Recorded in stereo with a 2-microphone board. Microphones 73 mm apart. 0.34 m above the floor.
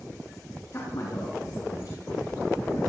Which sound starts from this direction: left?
A man speaking, at 0.7 s.